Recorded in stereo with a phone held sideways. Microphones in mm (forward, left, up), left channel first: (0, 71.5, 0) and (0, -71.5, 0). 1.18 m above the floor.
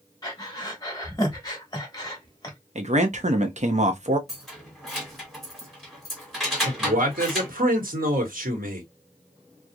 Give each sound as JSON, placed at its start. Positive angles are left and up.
{"t": 0.2, "sound": "breathing", "side_deg": 30, "distance_m": 0.9}
{"t": 2.8, "sound": "a man speaking", "side_deg": -55, "distance_m": 0.6}
{"t": 4.3, "sound": "keys jangling", "side_deg": 0, "distance_m": 1.2}
{"t": 6.7, "sound": "a man speaking", "side_deg": -85, "distance_m": 1.1}